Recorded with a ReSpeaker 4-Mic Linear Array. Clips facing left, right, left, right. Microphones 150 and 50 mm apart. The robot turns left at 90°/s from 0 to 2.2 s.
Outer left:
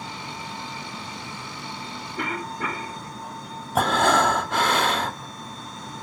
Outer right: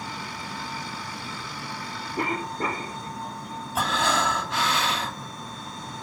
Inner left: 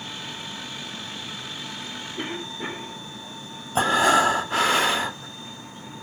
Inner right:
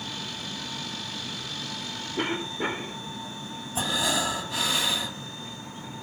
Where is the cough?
35° right (ahead or behind), 1.1 m.